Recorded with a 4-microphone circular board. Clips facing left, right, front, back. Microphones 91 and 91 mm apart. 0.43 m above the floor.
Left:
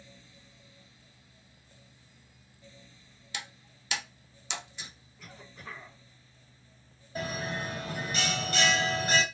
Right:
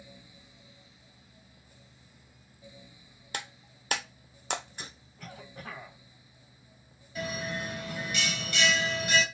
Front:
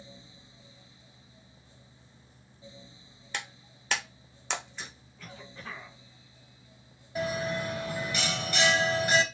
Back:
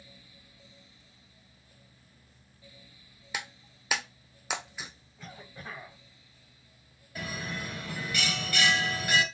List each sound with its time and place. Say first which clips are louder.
3.3 s breaking glass: right 3 dB, even; 95° right, 0.8 m
5.2 s a cough: right 4 dB, even; 110° right, 2 m
7.2 s a bell: even, front 7 dB; 60° left, 1.3 m